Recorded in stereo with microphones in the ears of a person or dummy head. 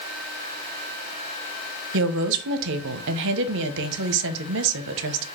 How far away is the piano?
No piano in this recording.